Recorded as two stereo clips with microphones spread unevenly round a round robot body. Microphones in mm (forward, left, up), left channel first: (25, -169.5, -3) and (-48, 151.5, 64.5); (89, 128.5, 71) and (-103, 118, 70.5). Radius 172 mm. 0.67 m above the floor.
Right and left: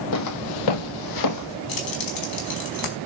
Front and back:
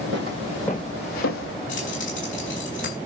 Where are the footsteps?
125° right, 1.3 m; by 1.6 s 25° right, 1.7 m.